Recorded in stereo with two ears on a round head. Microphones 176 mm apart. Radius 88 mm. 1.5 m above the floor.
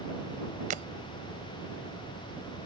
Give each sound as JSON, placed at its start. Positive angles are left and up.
{"t": 0.7, "sound": "breaking glass", "side_deg": -40}